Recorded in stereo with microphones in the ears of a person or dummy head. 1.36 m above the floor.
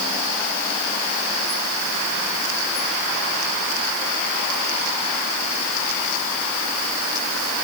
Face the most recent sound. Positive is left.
No sound to turn to.